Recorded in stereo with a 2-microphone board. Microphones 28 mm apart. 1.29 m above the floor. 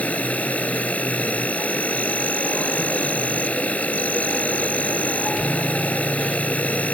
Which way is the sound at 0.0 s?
65° left (ahead or behind).